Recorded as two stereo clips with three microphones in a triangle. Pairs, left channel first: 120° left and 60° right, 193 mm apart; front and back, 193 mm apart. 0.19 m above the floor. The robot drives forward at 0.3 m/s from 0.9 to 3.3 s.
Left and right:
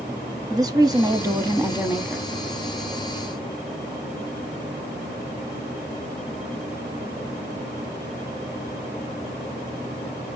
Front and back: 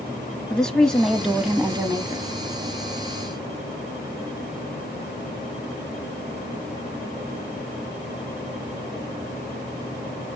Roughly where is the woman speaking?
Right.